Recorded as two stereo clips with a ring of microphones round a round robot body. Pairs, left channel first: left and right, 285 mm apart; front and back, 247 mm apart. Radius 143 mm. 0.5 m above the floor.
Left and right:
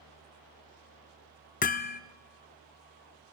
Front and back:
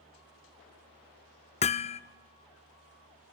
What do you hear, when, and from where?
1.6 s hammering: 50° left, 0.7 m